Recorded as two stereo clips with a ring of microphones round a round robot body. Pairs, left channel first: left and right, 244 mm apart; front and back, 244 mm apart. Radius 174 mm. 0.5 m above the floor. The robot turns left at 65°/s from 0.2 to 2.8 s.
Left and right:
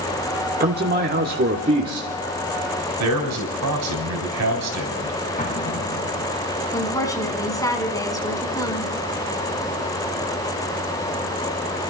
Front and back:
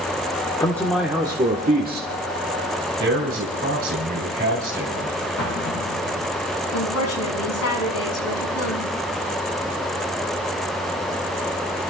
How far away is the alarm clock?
No alarm clock in this recording.